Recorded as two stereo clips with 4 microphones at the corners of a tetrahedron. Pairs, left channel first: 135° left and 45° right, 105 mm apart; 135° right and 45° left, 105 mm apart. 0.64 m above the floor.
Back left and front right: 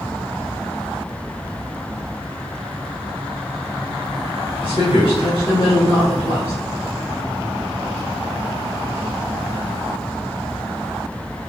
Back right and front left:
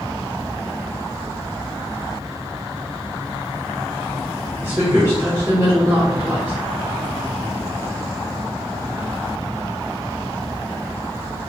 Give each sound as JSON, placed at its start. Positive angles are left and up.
{"t": 4.6, "sound": "a woman speaking", "azimuth_deg": 110, "distance_m": 3.0}